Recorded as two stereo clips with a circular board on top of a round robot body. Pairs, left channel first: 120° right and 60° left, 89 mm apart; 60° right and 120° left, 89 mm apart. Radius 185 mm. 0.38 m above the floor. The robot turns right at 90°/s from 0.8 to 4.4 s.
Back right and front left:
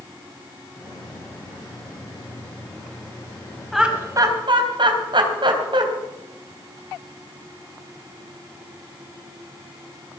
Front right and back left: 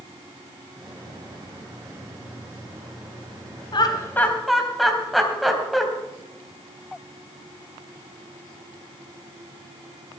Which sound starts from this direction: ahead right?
Laughter, at 3.7 s.